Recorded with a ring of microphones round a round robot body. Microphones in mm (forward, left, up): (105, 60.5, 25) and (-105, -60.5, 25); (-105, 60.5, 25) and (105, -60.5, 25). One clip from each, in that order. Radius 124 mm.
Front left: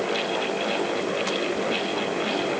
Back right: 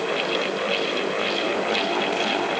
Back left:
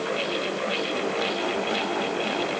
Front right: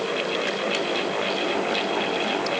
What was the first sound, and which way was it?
Only background noise.